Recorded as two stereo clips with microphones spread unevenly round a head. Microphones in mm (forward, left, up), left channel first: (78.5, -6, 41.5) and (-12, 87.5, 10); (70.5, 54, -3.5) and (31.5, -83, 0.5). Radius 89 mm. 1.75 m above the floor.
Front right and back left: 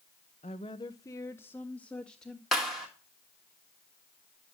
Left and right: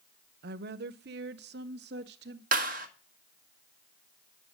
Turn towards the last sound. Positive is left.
turn(degrees=-130)